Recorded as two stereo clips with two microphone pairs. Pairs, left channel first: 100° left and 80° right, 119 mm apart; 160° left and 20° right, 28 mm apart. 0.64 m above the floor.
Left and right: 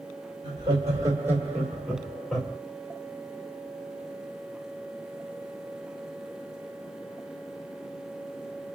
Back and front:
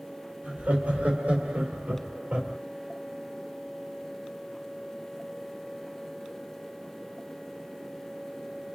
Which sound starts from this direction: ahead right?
Laughter, at 0.4 s.